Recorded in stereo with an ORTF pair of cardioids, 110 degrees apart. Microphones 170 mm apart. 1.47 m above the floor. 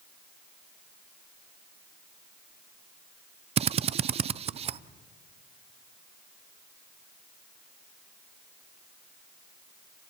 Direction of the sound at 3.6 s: 35° right.